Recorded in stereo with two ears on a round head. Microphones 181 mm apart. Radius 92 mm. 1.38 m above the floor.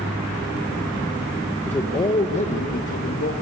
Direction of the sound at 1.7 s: 5° left (ahead or behind).